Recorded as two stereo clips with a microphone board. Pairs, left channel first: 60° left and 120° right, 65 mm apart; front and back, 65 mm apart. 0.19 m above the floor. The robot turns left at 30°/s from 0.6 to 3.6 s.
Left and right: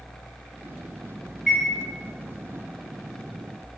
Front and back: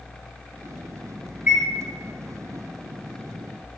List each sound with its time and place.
1.5 s a chime: 150° left, 1.3 m; by 1.6 s 145° left, 1.3 m